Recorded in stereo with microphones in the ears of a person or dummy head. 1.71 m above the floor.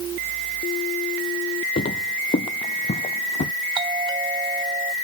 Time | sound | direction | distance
1.8 | footsteps | 30° left (ahead or behind) | ?
3.8 | a doorbell | 30° right (ahead or behind) | ?